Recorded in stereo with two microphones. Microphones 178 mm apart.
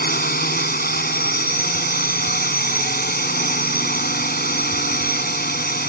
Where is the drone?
60° left (ahead or behind).